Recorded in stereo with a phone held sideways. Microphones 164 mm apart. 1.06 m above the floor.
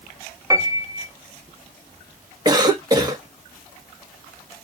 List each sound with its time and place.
0.5 s a piano: 20° right (ahead or behind), 0.8 m
2.5 s a cough: 25° right (ahead or behind), 1.2 m